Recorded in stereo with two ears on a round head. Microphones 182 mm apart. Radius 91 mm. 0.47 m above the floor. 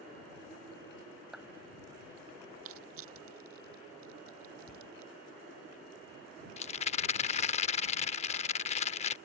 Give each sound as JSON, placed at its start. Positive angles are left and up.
{"t": 1.3, "sound": "a clap", "side_deg": 0}
{"t": 2.6, "sound": "crushing", "side_deg": -80}
{"t": 4.7, "sound": "a cupboard door", "side_deg": 40}
{"t": 6.6, "sound": "a rattle", "side_deg": 35}